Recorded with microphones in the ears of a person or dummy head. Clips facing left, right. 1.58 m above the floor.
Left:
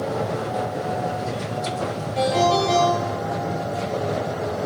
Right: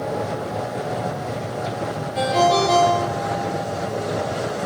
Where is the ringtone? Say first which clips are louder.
Right 1 dB; 5° right (ahead or behind), 0.8 m.